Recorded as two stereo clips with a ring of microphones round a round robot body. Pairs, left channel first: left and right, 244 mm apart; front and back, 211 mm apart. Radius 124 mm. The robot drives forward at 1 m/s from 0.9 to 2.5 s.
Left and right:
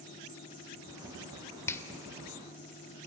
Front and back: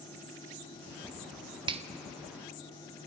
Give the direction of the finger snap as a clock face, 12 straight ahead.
7 o'clock.